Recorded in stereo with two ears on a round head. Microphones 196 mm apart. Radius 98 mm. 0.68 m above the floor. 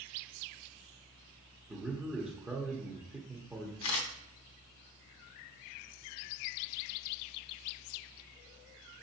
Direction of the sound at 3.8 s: 65° left (ahead or behind).